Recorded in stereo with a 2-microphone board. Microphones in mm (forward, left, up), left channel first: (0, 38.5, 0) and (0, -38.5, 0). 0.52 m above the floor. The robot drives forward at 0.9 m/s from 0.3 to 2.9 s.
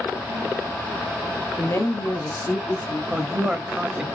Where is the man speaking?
15° right (ahead or behind), 0.7 m.